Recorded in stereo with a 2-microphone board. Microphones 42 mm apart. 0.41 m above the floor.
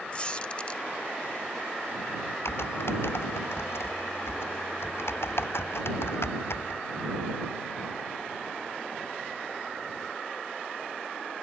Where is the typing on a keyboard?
75° left (ahead or behind).